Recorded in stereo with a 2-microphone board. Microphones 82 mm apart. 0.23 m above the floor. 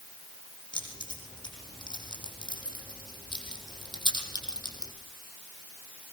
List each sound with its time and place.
0.7 s keys jangling: 80° left, 8 m; by 4.9 s 65° left (ahead or behind), 6 m